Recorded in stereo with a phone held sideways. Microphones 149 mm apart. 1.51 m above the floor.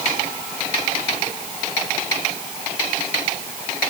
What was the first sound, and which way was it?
Only background noise.